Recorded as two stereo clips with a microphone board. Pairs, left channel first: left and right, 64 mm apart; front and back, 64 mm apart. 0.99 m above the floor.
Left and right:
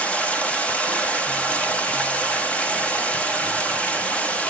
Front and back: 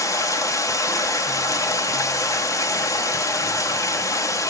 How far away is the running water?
About 0.9 m.